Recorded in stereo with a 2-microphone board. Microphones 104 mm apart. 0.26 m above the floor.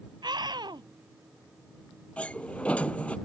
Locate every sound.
0.2 s a scream: 45° right (ahead or behind)
2.2 s a sliding door: 10° left (ahead or behind)